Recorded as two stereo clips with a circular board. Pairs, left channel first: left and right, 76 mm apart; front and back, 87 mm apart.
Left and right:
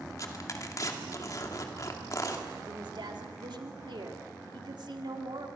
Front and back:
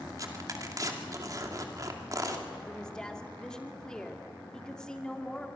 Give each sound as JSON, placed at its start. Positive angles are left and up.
{"t": 0.2, "sound": "tearing paper", "azimuth_deg": 130, "distance_m": 2.5}
{"t": 2.6, "sound": "a woman speaking", "azimuth_deg": -85, "distance_m": 2.0}